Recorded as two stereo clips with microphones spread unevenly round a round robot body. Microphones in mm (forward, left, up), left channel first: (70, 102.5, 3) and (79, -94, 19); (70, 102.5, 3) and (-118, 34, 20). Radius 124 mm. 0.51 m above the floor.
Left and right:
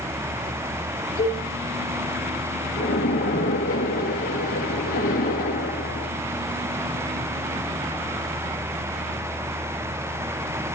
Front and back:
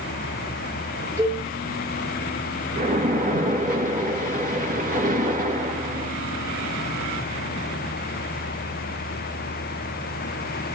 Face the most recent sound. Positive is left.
turn(degrees=155)